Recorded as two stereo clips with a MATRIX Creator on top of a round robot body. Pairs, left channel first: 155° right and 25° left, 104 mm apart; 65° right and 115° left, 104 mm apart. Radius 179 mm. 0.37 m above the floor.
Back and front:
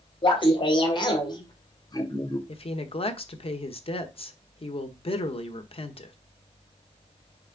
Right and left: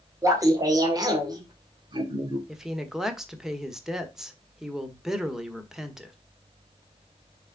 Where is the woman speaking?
165° right, 1.6 m.